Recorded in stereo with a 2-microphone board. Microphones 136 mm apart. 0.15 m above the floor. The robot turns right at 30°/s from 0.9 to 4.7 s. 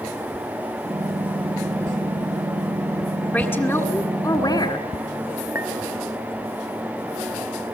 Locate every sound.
3.3 s a woman speaking: 20° left, 1.7 m; by 4.8 s 65° left, 1.7 m
5.5 s a clink: 20° right (ahead or behind), 1.5 m